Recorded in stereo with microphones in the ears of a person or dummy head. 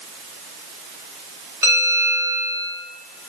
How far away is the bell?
About 2 m.